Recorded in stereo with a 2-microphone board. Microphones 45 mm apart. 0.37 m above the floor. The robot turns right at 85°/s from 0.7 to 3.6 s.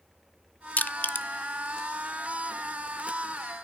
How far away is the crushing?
About 0.6 m.